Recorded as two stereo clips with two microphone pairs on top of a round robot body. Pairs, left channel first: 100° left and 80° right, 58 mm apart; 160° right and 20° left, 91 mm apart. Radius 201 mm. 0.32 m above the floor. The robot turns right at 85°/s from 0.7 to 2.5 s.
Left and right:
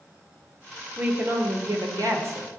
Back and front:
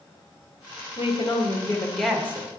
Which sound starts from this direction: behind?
A woman speaking, at 1.0 s.